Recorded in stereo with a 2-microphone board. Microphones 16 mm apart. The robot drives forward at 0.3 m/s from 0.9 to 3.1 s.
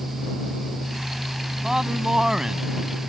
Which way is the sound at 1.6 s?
35° right (ahead or behind).